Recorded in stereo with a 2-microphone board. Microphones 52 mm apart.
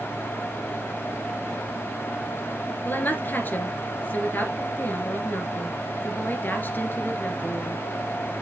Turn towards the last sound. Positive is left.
turn(degrees=40)  # may be behind; listen again after turning